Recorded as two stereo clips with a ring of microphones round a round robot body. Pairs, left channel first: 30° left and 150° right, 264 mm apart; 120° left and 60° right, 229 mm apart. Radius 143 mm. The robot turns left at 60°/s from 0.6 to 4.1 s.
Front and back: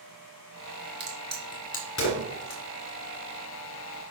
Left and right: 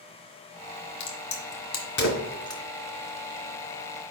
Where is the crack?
135° left, 1.7 m; by 2.6 s 40° left, 1.7 m.